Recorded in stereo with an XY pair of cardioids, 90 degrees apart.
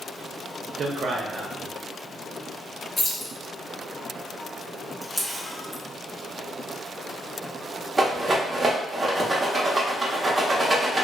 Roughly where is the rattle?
Ahead right.